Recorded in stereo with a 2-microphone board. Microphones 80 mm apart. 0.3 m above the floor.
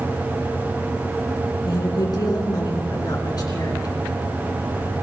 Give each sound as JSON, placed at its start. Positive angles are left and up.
{"t": 1.6, "sound": "a woman speaking", "side_deg": 55, "distance_m": 3.0}